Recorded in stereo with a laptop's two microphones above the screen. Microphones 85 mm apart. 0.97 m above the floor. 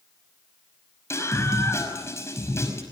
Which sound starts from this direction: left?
A scream, at 1.1 s.